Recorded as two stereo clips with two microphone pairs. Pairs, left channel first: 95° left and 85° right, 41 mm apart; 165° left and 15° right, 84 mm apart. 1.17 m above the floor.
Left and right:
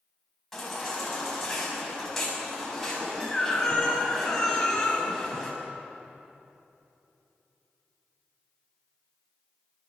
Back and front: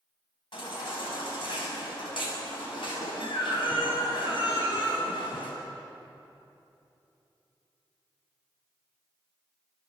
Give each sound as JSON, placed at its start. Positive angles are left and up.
{"t": 0.5, "sound": "a baby crying", "azimuth_deg": 180, "distance_m": 7.5}